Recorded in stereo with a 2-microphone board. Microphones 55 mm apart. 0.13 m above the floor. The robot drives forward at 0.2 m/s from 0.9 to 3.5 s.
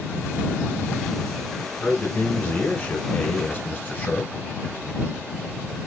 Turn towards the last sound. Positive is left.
turn(degrees=25)  # may be behind; listen again after turning